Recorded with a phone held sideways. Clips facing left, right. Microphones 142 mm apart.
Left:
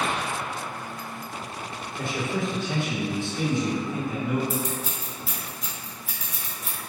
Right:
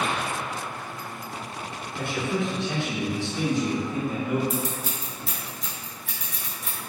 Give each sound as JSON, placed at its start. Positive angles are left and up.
{"t": 2.0, "sound": "a man speaking", "side_deg": -60, "distance_m": 1.1}
{"t": 4.5, "sound": "scissors", "side_deg": 5, "distance_m": 0.6}